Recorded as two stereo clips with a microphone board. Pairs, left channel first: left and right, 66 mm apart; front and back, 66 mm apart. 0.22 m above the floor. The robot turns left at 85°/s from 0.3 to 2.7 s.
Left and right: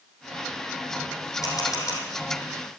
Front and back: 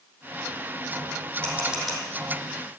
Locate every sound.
1.4 s a camera shutter: 125° left, 5 m; by 2.0 s 75° left, 5 m